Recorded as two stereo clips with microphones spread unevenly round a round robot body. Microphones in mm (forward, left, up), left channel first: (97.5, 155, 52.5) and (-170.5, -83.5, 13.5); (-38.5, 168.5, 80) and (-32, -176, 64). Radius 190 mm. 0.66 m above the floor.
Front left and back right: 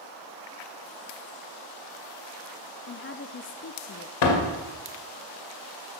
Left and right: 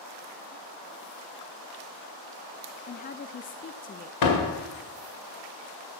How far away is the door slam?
About 2.0 m.